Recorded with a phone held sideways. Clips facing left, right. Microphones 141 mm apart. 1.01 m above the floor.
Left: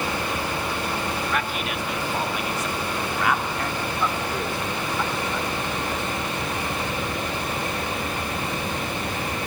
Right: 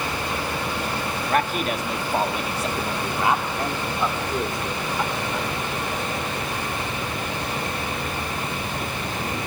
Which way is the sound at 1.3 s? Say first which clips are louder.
Right 4 dB; 45° right (ahead or behind).